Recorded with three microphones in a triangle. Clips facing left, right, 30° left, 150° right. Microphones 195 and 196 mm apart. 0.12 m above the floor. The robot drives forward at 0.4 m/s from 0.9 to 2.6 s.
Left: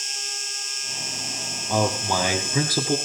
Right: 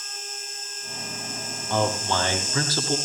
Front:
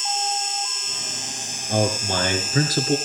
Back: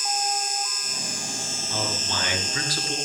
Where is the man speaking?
20° left, 2.5 m; by 3.0 s 25° left, 2 m.